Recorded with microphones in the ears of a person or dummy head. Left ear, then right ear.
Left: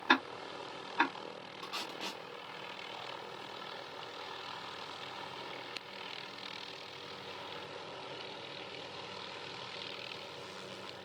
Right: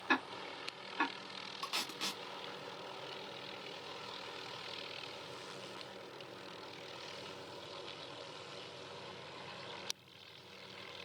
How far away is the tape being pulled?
About 0.5 m.